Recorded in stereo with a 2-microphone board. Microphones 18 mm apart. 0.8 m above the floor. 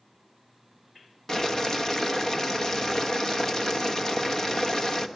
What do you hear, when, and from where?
1.3 s boiling: 25° left (ahead or behind), 1.0 m